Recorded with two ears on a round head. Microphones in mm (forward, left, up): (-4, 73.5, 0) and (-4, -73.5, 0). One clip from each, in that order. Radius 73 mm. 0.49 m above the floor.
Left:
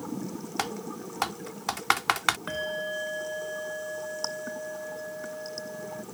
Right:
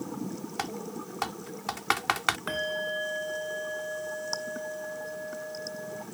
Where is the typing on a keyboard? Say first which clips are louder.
Left 3 dB; 15° left (ahead or behind).